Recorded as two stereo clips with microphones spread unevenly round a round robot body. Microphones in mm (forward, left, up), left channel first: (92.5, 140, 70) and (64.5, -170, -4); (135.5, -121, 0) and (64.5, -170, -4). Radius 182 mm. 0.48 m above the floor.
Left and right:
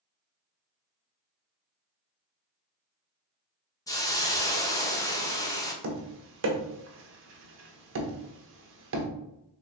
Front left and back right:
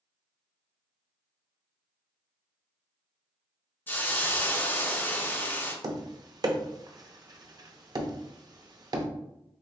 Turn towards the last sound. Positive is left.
turn(degrees=-120)